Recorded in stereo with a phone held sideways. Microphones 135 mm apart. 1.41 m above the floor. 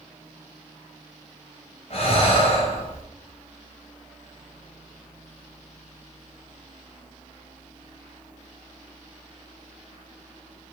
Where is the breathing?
45° left (ahead or behind), 0.9 m.